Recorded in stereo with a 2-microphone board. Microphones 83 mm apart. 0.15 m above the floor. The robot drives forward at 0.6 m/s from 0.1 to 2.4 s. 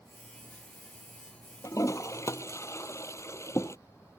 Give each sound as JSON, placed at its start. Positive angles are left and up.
{"t": 1.6, "sound": "a toilet flushing", "side_deg": 40}